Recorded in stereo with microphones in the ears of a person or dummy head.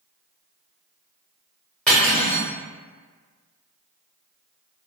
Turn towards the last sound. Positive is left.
turn(degrees=0)  # may be behind; listen again after turning